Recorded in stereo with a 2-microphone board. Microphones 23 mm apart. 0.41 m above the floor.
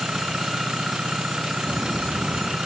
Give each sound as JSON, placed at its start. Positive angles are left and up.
{"t": 0.0, "sound": "an engine running", "side_deg": -50}
{"t": 1.7, "sound": "footsteps", "side_deg": -70}